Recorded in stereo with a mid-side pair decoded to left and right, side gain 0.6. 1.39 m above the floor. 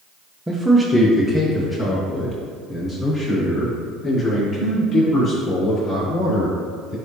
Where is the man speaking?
5° right, 0.8 m; by 6.9 s 50° left, 5.5 m.